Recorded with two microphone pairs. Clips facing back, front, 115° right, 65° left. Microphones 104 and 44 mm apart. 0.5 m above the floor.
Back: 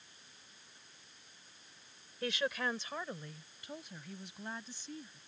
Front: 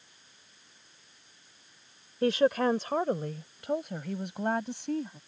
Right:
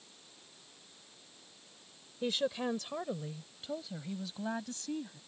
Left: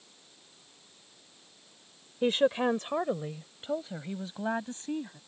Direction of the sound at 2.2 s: 35° left.